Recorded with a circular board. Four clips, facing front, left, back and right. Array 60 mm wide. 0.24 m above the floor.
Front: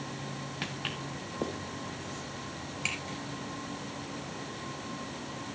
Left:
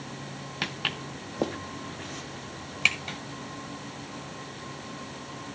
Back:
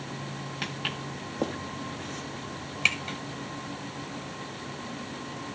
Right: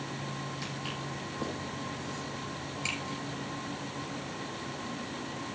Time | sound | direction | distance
0.6 | footsteps | 95° left | 1.2 m